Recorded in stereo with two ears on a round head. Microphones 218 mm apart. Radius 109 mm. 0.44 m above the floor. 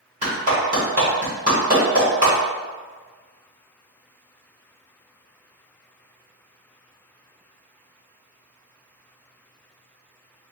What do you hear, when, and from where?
0.2 s a clap: 35° right (ahead or behind), 2.0 m